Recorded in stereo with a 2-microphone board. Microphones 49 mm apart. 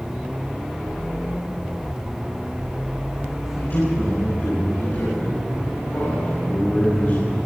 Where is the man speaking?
55° left (ahead or behind), 9.5 m.